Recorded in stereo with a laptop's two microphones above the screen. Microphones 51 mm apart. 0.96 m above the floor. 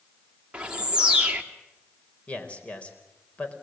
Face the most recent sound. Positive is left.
turn(degrees=25)  # may be behind; listen again after turning